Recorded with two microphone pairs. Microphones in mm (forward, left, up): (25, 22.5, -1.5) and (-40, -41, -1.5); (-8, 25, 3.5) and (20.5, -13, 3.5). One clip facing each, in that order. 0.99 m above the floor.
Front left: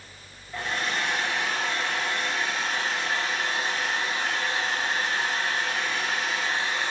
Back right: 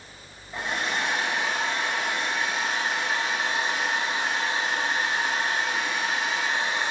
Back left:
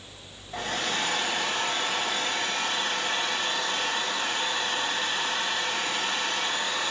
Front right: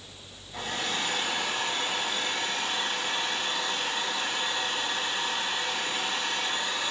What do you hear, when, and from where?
0.5 s a hair dryer: 155° left, 1.4 m